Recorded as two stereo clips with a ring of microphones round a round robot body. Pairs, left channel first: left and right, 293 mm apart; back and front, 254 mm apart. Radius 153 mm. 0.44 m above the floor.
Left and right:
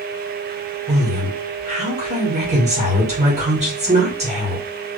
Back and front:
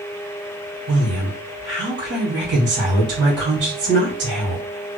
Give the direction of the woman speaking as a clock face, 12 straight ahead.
1 o'clock.